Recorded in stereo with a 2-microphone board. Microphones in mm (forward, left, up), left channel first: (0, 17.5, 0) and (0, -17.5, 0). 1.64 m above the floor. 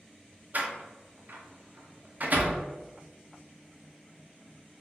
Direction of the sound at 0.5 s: 45° right (ahead or behind).